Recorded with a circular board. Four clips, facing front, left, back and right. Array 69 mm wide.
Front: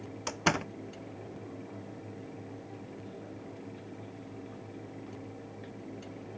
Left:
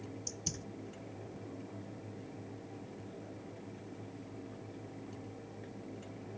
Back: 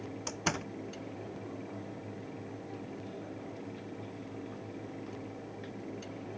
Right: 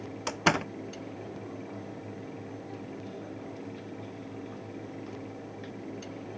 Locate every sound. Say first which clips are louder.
0.3 s a door slam: right 19 dB, front 6 dB; 70° right